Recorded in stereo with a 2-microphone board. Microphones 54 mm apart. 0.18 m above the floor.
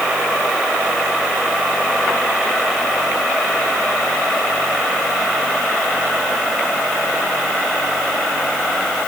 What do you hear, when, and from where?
Only background noise.